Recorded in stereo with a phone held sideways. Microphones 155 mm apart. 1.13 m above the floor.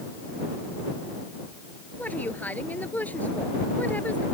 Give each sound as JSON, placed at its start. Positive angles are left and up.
{"t": 2.0, "sound": "a woman speaking", "side_deg": 10}